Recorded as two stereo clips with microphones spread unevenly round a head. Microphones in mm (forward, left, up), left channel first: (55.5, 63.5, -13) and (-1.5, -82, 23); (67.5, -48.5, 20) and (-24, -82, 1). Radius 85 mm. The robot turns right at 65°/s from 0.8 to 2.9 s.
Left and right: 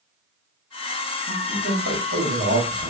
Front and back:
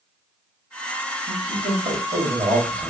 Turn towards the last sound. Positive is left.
turn(degrees=-70)